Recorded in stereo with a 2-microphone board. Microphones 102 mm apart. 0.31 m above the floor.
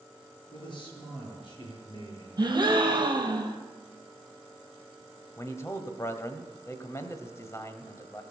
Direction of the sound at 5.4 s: 30° left (ahead or behind).